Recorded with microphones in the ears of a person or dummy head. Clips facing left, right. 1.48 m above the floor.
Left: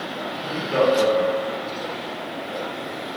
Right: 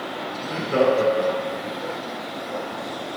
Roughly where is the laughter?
Right.